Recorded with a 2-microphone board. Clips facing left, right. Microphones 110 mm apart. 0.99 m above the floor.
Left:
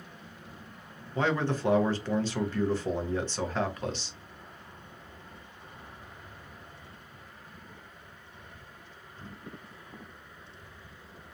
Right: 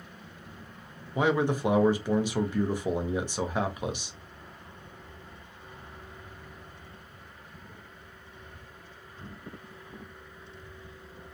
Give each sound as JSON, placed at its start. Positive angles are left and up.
{"t": 1.1, "sound": "a man speaking", "side_deg": -15, "distance_m": 0.6}